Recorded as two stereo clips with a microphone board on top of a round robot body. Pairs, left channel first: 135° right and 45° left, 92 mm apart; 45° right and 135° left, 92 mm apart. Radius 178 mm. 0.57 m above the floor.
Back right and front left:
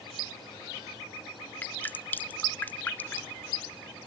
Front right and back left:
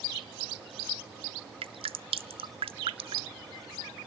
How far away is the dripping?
About 0.7 m.